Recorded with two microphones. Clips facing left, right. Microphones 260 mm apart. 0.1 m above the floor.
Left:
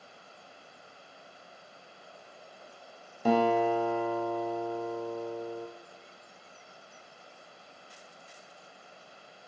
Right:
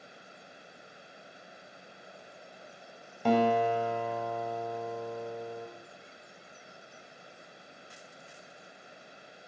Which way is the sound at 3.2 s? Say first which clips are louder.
Left 1 dB; 10° left (ahead or behind).